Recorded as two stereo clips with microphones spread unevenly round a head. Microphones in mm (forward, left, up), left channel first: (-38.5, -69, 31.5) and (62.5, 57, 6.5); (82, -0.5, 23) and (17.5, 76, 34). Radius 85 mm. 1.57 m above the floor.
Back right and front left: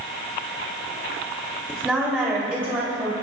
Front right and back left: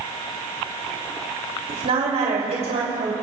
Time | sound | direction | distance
1.7 | a woman speaking | 140° left | 3 m